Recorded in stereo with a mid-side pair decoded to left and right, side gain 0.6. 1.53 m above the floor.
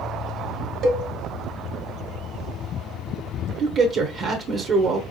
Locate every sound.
0.8 s a cowbell: 55° right, 1.7 m
3.6 s a man speaking: 50° right, 0.9 m